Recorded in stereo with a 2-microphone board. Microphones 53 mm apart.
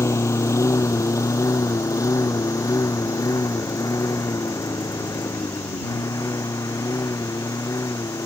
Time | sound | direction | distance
0.0 | a lawn mower | 60° left (ahead or behind) | ?